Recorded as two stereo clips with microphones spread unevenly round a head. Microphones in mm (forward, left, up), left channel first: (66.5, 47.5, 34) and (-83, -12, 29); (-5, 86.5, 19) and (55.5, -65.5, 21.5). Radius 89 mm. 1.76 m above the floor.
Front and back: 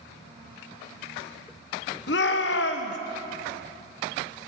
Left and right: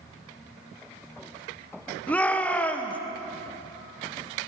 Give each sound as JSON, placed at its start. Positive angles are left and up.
{"t": 2.1, "sound": "a shout", "azimuth_deg": 30, "distance_m": 1.2}